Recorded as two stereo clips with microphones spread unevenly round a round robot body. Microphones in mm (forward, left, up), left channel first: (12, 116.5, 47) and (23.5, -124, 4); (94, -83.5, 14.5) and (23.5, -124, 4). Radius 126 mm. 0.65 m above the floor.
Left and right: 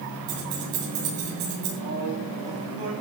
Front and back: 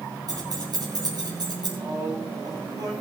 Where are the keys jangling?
115° right, 8 m; by 1.7 s 120° right, 8.5 m.